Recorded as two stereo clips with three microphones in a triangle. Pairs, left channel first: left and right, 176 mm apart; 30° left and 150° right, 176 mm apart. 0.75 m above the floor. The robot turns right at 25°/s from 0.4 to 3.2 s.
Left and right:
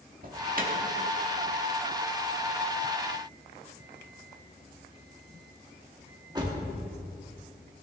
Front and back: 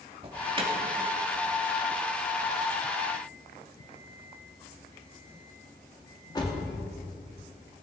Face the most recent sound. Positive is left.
turn(degrees=-30)